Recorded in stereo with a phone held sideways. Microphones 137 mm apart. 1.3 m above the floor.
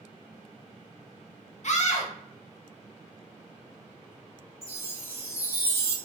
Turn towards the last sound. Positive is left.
turn(degrees=-25)  # may be behind; listen again after turning